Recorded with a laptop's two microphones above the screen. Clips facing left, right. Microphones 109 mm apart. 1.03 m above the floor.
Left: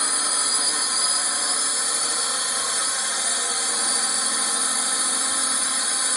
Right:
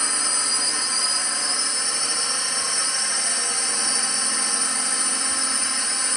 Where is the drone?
5° left (ahead or behind).